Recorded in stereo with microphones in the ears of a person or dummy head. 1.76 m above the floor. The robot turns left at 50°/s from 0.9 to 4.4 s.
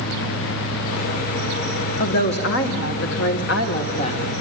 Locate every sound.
2.0 s a woman speaking: 135° left, 1.7 m; by 4.2 s 25° left, 1.7 m